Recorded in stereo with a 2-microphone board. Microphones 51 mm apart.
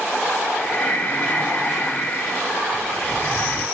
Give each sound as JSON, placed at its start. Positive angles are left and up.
{"t": 0.6, "sound": "breathing", "side_deg": 30, "distance_m": 0.8}